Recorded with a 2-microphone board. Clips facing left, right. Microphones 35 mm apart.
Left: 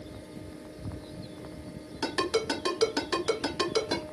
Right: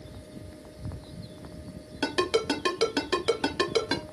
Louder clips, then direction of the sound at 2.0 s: Right 2 dB; 45° right (ahead or behind).